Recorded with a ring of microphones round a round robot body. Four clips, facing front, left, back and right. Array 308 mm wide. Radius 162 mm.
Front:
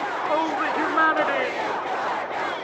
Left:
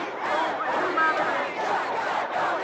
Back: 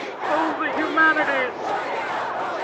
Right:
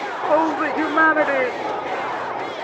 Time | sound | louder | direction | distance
0.2 | a shout | right 8 dB, back 3 dB | 105° right | ?